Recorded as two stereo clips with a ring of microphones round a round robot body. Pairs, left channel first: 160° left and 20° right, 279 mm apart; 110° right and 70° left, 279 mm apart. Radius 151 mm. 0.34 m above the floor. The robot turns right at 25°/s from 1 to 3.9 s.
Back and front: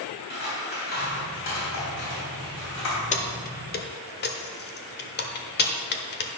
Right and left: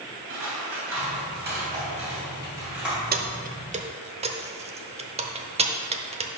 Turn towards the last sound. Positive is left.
turn(degrees=125)